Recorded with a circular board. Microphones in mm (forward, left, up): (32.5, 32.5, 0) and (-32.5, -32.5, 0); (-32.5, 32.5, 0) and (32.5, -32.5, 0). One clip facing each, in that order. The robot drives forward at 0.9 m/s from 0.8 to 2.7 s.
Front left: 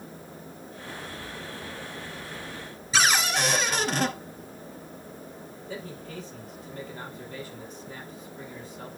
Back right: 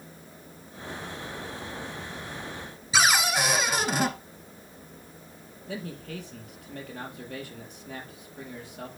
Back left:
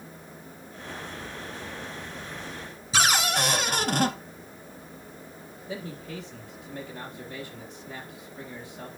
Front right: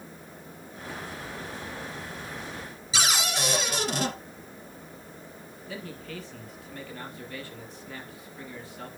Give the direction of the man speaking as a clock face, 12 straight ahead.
5 o'clock.